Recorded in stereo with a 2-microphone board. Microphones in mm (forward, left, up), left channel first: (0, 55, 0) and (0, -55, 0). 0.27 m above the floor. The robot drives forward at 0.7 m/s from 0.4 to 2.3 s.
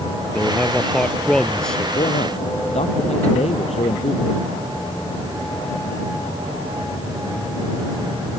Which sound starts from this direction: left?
A man speaking, at 1.9 s.